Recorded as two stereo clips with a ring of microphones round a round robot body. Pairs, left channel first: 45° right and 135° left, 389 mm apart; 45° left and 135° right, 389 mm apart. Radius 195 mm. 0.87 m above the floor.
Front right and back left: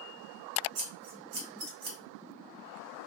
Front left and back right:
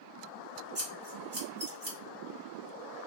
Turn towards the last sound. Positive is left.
turn(degrees=160)